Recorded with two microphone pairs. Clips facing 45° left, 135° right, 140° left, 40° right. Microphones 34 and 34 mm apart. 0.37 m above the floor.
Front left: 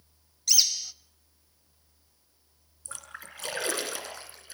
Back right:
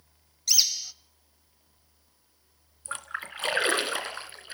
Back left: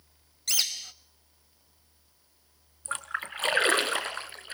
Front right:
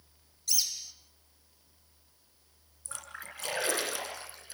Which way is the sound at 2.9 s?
175° left.